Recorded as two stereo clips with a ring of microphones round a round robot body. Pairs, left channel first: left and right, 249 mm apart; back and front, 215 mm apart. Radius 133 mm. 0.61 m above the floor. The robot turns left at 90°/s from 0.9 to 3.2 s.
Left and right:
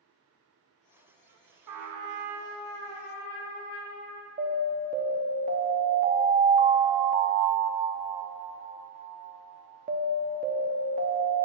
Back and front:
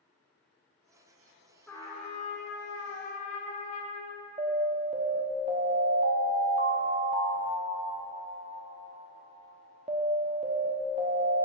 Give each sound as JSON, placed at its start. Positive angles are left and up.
{"t": 1.7, "sound": "a trumpet", "azimuth_deg": -95, "distance_m": 0.9}
{"t": 4.4, "sound": "an alarm", "azimuth_deg": -50, "distance_m": 0.9}